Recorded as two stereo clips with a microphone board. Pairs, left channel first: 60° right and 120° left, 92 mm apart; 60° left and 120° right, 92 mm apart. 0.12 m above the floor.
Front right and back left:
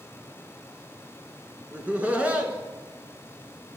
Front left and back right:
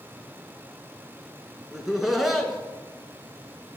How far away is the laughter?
About 1.1 m.